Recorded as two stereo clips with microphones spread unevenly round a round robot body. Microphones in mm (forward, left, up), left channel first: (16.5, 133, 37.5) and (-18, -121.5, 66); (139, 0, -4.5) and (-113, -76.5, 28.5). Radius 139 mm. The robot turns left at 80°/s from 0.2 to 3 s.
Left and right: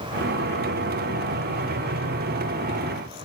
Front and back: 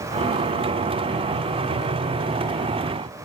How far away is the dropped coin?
No dropped coin in this recording.